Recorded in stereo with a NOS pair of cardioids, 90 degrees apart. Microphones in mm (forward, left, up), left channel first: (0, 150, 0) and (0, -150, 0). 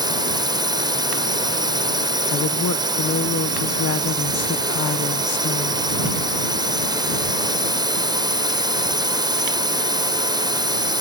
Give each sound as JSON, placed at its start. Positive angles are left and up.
{"t": 0.0, "sound": "a drone", "azimuth_deg": -15}
{"t": 2.3, "sound": "a woman speaking", "azimuth_deg": 55}